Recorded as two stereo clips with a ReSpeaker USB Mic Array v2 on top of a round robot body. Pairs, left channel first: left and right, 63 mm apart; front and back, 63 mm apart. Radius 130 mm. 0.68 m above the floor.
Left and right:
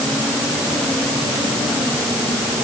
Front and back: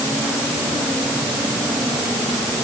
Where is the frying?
I don't hear frying.